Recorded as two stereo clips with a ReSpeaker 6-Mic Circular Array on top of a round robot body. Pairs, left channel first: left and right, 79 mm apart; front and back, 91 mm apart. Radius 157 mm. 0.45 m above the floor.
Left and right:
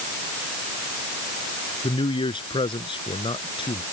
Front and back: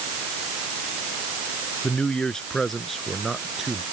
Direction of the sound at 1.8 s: 80° left.